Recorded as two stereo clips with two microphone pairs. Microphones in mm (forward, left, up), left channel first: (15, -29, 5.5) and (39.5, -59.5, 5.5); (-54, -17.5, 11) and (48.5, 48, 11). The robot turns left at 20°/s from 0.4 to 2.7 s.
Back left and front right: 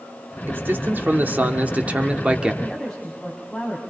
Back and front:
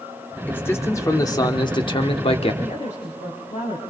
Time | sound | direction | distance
0.5 | a man speaking | 75° right | 1.6 m
2.6 | a woman speaking | 150° right | 5 m